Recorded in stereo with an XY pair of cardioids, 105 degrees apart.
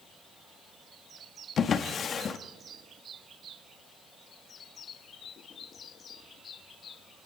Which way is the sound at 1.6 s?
50° left.